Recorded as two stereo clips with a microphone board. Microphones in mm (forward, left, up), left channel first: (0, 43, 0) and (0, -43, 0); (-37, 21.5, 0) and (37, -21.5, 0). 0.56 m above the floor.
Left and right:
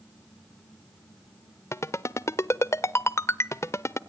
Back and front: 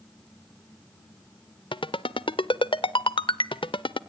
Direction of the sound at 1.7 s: 145° left.